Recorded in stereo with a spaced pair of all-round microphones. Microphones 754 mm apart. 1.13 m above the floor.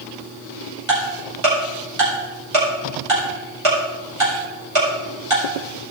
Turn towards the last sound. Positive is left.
turn(degrees=-40)  # may be behind; listen again after turning